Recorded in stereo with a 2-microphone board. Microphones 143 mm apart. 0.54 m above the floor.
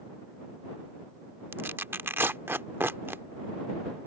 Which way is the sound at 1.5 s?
15° right (ahead or behind).